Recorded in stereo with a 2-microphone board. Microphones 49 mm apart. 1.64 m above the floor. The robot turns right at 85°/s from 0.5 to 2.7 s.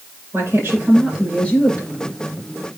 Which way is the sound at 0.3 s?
55° right.